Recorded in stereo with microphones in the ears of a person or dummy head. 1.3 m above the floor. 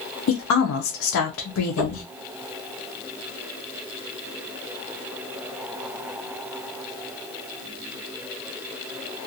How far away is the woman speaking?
About 0.6 m.